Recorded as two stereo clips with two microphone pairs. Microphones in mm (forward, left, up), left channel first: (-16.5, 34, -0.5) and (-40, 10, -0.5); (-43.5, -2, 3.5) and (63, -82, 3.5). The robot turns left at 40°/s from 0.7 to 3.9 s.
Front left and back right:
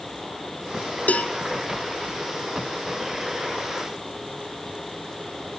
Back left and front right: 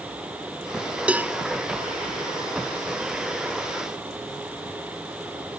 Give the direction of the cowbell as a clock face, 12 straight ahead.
11 o'clock.